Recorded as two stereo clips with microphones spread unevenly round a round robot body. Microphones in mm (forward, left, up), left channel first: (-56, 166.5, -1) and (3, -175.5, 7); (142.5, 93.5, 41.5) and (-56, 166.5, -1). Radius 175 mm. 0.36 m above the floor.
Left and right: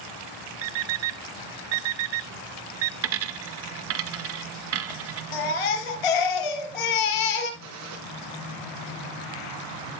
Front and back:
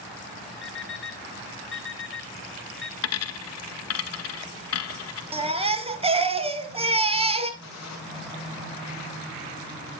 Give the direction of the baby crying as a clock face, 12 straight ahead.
9 o'clock.